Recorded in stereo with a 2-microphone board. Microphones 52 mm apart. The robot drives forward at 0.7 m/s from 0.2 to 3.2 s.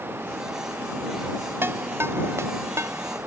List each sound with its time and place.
1.6 s a ringtone: 50° right (ahead or behind); by 3.2 s 70° right (ahead or behind)